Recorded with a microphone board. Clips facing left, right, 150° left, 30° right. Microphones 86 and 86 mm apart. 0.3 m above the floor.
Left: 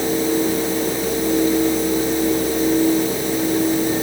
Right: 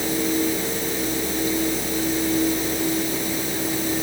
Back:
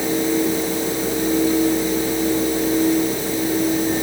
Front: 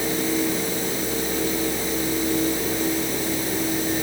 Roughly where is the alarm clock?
No alarm clock in this recording.